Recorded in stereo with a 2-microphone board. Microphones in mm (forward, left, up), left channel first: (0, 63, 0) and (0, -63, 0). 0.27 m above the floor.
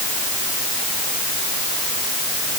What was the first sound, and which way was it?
Only background noise.